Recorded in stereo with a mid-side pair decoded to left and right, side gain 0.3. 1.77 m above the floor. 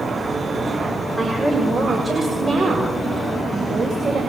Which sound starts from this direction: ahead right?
A woman speaking, at 1.2 s.